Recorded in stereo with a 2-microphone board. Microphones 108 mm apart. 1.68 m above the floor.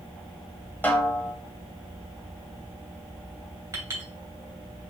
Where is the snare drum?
15° left (ahead or behind), 1.4 m.